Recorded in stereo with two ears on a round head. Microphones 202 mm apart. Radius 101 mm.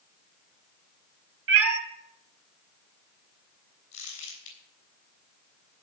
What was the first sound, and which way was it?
A cat meowing, 65° right (ahead or behind).